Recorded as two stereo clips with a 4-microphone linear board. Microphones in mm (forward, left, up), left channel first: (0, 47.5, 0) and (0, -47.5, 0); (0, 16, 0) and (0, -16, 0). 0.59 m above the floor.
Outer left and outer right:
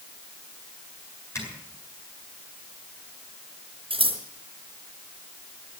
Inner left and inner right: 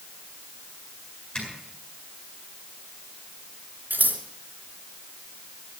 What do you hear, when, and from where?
1.4 s a zipper: 30° left (ahead or behind), 8.5 m
3.9 s scissors: 75° right (ahead or behind), 3.5 m